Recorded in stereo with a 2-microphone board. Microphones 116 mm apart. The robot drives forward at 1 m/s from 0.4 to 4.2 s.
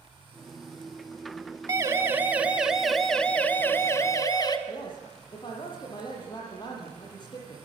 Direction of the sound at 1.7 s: 25° right (ahead or behind).